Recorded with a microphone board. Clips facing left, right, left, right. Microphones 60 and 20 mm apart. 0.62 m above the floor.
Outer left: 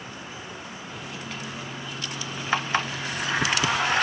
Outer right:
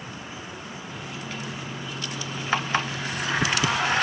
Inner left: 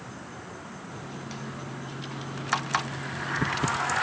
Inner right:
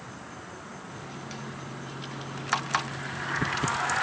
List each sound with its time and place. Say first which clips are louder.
0.9 s a microwave: outer right 1 dB, inner left 1 dB; centre (ahead or behind), 0.9 m